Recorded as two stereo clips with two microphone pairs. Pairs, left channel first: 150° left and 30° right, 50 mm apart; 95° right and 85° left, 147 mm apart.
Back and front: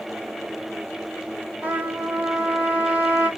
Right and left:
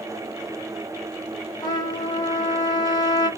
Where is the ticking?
I don't hear ticking.